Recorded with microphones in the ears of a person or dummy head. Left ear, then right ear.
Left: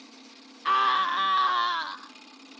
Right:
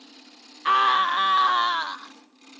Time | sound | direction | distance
0.7 | a scream | 10° right (ahead or behind) | ?